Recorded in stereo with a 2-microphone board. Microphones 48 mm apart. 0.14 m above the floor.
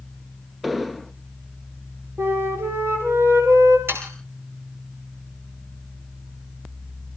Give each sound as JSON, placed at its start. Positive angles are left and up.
{"t": 0.6, "sound": "an explosion", "side_deg": -5, "distance_m": 0.9}
{"t": 2.2, "sound": "a flute", "side_deg": -70, "distance_m": 6.0}
{"t": 3.9, "sound": "sawing", "side_deg": -55, "distance_m": 6.0}